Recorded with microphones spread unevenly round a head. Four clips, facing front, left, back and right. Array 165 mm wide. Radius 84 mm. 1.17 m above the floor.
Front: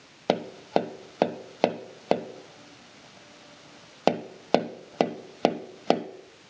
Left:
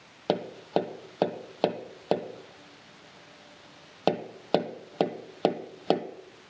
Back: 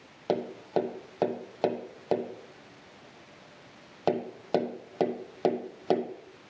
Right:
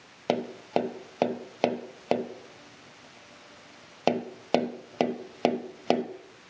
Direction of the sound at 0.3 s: 5° left.